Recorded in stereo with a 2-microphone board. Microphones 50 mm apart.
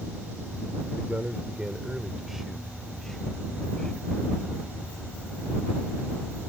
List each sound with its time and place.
0.9 s a man speaking: 40° right (ahead or behind); by 4.1 s 15° left (ahead or behind)